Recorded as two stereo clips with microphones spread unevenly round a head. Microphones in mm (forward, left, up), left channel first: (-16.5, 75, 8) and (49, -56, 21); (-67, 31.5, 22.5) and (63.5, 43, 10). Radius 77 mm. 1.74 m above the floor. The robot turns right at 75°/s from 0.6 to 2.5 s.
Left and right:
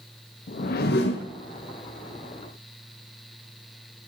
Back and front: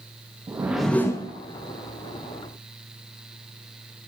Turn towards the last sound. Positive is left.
turn(degrees=-135)